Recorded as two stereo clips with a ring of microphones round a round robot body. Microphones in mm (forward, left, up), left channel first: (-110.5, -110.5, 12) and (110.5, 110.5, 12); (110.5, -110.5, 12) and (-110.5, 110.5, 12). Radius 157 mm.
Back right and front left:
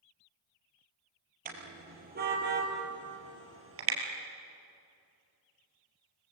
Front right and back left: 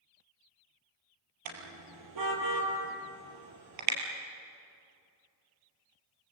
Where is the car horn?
110° left, 4.5 m; by 4.0 s 95° left, 4 m.